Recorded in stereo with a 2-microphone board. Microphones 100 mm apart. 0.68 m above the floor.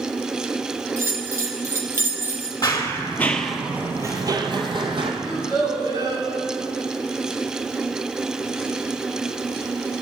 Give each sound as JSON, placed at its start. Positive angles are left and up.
{"t": 1.0, "sound": "a bell", "side_deg": -30, "distance_m": 0.8}
{"t": 2.6, "sound": "running footsteps", "side_deg": 40, "distance_m": 0.9}
{"t": 5.2, "sound": "a child speaking", "side_deg": -45, "distance_m": 4.0}